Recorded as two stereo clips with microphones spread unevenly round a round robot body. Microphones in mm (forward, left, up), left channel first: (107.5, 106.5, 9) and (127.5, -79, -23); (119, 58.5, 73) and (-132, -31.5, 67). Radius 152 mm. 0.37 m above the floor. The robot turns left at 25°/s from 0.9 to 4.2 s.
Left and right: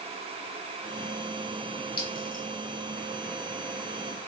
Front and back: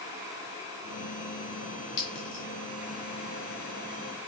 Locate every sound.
2.0 s a clink: 55° left, 1.3 m; by 2.4 s 40° left, 1.3 m